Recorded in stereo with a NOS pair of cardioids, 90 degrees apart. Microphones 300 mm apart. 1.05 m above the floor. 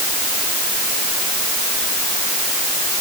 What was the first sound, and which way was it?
Only background noise.